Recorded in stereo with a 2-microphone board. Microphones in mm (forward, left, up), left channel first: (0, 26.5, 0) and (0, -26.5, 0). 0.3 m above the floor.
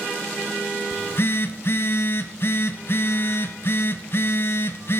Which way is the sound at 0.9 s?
55° left (ahead or behind).